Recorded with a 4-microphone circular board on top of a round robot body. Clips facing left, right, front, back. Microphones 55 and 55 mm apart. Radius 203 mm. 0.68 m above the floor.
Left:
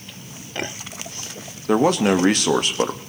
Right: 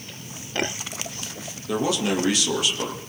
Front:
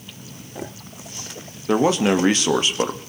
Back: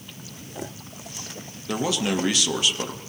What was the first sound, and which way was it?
A man speaking, 50° left.